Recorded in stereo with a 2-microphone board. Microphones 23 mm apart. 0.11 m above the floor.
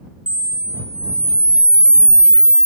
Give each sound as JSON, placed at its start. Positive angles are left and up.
{"t": 0.3, "sound": "a camera shutter", "side_deg": -40}